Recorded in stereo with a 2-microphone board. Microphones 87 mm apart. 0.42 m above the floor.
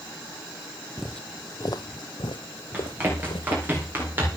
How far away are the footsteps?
About 0.6 m.